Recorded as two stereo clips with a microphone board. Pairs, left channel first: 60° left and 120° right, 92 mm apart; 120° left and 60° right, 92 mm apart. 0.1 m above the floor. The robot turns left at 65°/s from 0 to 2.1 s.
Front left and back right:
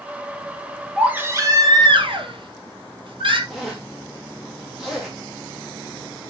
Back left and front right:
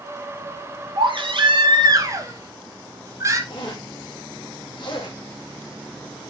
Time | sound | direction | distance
1.0 | a baby crying | 40° right | 2.5 m
3.5 | a zipper | 150° left | 5.5 m